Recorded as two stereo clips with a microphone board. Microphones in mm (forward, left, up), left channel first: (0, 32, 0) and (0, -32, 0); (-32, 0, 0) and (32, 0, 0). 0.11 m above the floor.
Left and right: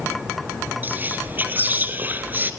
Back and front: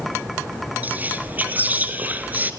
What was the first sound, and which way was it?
Whispering, 45° right.